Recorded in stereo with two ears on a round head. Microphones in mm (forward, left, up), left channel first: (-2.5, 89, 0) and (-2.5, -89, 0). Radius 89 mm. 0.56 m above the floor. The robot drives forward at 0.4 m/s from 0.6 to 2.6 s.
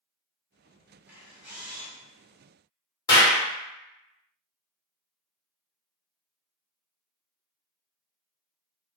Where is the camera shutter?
10° right (ahead or behind), 0.6 m; by 1.9 s 5° right (ahead or behind), 0.9 m.